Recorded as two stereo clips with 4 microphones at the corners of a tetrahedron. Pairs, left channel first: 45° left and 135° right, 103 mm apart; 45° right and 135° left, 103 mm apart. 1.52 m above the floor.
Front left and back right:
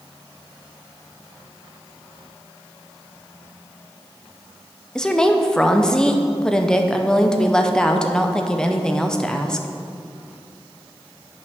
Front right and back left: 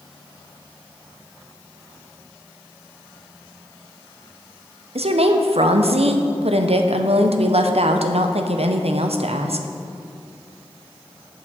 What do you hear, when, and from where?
5.0 s a woman speaking: 130° left, 0.6 m